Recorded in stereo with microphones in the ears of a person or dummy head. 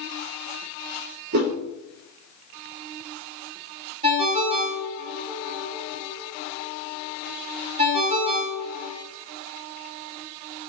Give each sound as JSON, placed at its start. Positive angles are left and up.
{"t": 1.3, "sound": "a whoosh", "side_deg": -50, "distance_m": 0.7}
{"t": 4.0, "sound": "a ringtone", "side_deg": -35, "distance_m": 1.1}